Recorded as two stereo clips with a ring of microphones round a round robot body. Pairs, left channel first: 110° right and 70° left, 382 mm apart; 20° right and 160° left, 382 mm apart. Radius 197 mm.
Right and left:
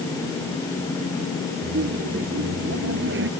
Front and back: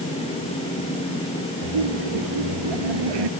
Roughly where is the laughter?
Behind left.